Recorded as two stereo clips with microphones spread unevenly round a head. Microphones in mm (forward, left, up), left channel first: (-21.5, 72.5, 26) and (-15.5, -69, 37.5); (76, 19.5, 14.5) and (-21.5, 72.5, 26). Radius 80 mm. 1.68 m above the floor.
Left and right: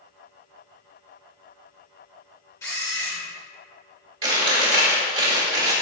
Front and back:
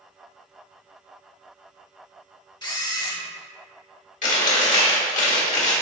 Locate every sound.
2.6 s a camera shutter: 20° left, 1.7 m
4.2 s chewing: 30° right, 2.5 m